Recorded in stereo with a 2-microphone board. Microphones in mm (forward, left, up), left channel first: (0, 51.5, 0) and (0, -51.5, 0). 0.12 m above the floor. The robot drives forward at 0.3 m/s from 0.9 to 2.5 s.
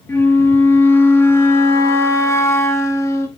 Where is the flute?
25° left (ahead or behind), 1.2 m; by 3.3 s 30° left (ahead or behind), 0.9 m.